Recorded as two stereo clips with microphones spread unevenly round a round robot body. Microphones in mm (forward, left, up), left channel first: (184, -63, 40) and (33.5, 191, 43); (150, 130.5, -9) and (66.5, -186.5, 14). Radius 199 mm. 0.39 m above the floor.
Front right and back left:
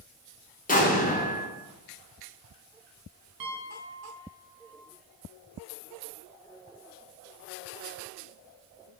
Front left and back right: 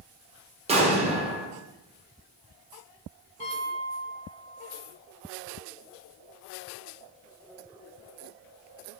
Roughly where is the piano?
Behind left.